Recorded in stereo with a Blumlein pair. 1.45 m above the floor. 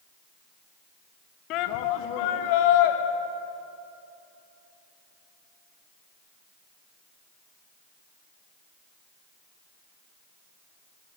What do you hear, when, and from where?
1.5 s a shout: 40° left, 1.8 m; by 3.0 s 50° left, 3.5 m